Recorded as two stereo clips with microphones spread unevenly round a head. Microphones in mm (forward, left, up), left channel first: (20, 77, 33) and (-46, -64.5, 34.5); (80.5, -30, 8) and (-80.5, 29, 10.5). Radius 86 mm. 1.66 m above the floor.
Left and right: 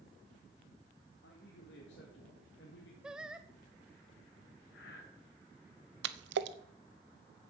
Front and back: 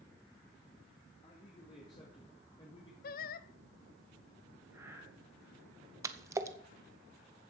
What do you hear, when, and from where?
1.2 s a man speaking: 40° left, 2.5 m
3.0 s singing: 30° right, 0.5 m
4.7 s breathing: 85° left, 3 m
6.0 s a splash: 125° right, 0.8 m